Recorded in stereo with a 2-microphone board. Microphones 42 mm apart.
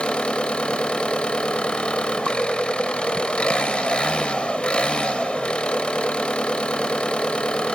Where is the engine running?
25° left (ahead or behind), 0.7 m.